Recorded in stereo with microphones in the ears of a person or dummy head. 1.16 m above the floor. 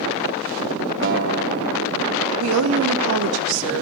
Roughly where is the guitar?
Right.